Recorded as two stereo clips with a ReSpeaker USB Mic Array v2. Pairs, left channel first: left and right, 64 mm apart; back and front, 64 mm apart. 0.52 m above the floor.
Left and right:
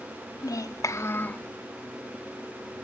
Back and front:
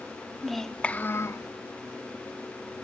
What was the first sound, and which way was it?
A child speaking, 90° left.